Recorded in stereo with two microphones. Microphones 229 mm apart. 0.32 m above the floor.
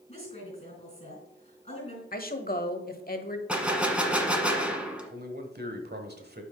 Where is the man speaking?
45° right (ahead or behind), 1.3 m.